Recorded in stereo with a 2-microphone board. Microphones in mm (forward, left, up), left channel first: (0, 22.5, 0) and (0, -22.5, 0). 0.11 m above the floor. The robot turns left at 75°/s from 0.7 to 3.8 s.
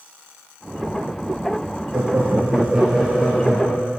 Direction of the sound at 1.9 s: 100° right.